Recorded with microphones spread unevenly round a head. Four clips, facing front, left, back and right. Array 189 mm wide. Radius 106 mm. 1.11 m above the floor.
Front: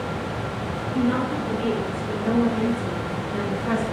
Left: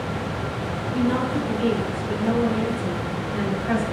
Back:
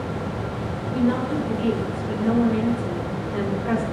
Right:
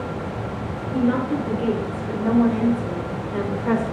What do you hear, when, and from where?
0.9 s a woman speaking: 85° right, 4 m; by 3.8 s 80° right, 1.8 m